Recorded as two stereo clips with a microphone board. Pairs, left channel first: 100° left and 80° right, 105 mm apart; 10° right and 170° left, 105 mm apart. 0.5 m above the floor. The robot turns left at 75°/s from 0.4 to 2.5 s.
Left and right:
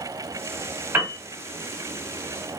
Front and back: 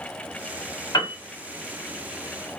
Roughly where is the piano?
Ahead right.